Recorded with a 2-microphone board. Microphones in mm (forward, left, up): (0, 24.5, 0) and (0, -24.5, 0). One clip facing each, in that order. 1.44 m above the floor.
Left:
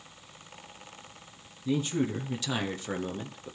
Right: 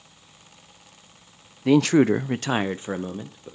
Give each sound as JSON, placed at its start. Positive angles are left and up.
{"t": 1.6, "sound": "a man speaking", "side_deg": -65, "distance_m": 0.7}